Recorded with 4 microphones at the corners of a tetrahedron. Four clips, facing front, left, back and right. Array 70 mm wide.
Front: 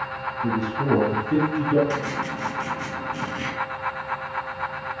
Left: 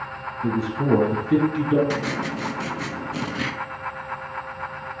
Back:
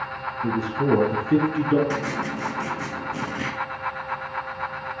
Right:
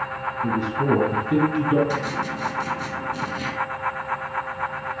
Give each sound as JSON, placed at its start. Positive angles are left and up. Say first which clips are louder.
{"t": 0.4, "sound": "a man speaking", "louder": "even, back 1 dB", "azimuth_deg": 110, "distance_m": 1.5}
{"t": 1.9, "sound": "writing", "louder": "even, even", "azimuth_deg": 110, "distance_m": 1.2}